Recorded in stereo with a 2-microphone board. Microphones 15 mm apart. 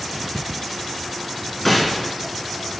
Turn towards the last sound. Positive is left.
turn(degrees=15)  # may be behind; listen again after turning